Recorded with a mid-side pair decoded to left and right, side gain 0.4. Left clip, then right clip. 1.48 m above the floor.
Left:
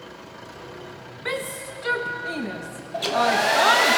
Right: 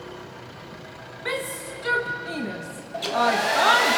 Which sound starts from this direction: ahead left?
A hair dryer, at 2.9 s.